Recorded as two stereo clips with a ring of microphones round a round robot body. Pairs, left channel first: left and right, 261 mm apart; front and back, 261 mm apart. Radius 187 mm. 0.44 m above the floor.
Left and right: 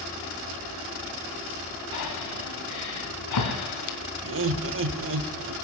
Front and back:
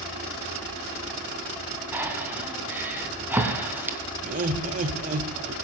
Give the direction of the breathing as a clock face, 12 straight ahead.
9 o'clock.